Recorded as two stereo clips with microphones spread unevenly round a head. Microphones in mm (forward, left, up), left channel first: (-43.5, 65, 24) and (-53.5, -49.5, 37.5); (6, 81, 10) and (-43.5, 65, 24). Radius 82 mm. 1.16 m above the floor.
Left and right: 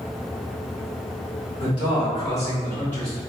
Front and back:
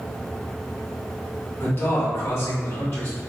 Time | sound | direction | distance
1.6 | a man speaking | 40° left | 1.8 m